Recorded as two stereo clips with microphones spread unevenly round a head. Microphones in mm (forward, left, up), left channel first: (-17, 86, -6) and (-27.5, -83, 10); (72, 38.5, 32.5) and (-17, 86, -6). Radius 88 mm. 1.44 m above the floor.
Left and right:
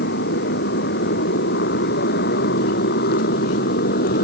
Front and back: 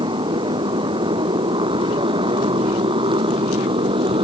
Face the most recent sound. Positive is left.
turn(degrees=120)